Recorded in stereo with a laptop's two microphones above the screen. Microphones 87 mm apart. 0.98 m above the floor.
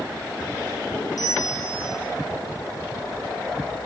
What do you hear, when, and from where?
1.2 s a bell: 50° left (ahead or behind), 6 m